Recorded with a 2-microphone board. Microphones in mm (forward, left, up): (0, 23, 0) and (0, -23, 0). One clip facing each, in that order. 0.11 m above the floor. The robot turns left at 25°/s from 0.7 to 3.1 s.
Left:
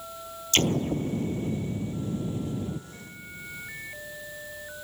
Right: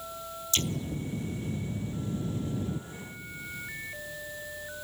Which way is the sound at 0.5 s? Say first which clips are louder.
Left 9 dB; 60° left.